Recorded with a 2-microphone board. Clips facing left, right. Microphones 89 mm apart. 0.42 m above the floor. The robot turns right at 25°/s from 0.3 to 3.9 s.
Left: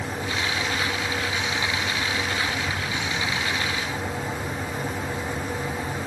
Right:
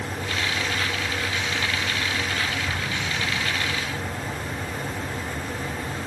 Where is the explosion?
5° right (ahead or behind), 2.5 m; by 3.5 s 20° left (ahead or behind), 2.5 m.